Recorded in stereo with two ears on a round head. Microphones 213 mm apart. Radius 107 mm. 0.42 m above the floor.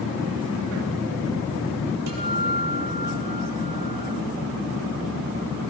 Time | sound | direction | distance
2.1 | a guitar | 80° right | 7 m